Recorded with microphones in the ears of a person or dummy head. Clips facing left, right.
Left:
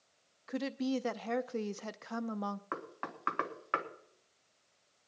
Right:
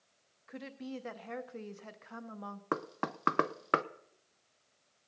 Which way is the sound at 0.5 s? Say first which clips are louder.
Left 9 dB; 60° left (ahead or behind).